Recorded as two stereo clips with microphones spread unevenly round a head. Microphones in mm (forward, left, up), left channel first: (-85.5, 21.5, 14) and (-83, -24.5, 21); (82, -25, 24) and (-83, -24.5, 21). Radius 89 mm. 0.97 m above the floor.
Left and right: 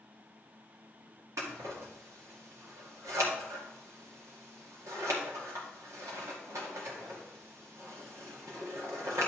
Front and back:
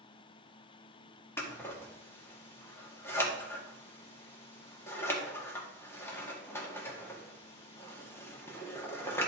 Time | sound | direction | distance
1.4 | scissors | 75° right | 1.9 m